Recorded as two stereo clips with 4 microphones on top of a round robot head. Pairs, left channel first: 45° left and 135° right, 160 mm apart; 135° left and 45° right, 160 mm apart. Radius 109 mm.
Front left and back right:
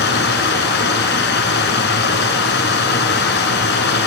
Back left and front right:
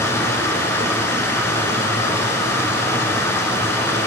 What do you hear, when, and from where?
0.0 s running water: 60° left, 1.1 m